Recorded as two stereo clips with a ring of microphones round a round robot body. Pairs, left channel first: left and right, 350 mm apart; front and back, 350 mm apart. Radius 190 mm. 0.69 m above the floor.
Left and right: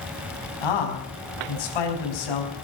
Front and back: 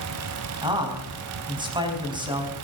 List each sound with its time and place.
0.6 s a man speaking: 105° left, 5 m